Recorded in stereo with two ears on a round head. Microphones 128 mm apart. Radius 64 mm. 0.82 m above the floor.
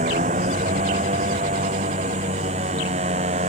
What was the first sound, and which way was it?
A motorcycle, 50° right (ahead or behind).